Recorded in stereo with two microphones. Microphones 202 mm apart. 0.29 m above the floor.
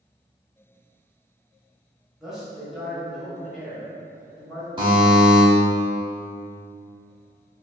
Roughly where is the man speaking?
Centre.